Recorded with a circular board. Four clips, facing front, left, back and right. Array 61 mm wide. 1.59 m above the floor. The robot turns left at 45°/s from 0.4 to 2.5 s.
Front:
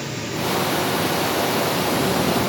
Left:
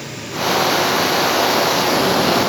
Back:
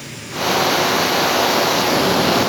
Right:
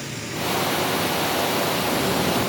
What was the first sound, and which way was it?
Only background noise.